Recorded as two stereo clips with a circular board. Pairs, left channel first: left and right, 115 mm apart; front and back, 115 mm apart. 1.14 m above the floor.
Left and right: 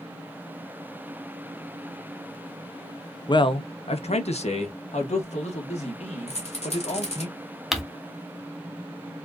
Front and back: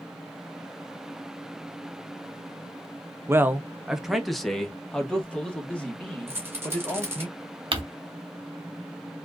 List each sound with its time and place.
3.3 s a man speaking: 120° left, 0.5 m; by 7.3 s 75° left, 2.5 m
6.3 s a rattle: 115° left, 1.9 m
7.7 s crumpling: straight behind, 0.9 m